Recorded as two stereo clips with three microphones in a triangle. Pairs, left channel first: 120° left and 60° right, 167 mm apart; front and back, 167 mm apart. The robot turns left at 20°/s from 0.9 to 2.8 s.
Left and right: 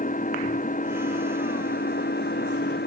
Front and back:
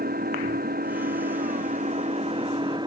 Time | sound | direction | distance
0.0 | an engine running | 155° left | ?